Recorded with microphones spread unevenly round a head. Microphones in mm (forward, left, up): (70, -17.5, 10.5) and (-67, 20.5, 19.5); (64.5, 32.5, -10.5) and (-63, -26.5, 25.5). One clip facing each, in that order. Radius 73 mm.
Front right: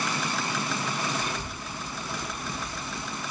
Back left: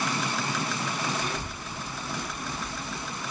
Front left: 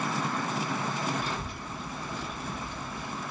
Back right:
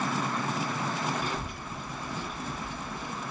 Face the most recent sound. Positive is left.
turn(degrees=-155)